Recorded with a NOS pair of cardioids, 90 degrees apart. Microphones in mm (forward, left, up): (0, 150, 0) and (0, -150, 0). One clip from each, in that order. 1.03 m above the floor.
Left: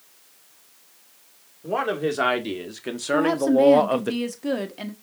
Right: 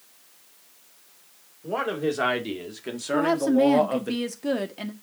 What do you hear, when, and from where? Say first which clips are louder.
1.6 s a man speaking: left 2 dB; 15° left, 3 m; by 4.1 s 35° left, 1.1 m
3.1 s a woman speaking: left 2 dB; straight ahead, 1.8 m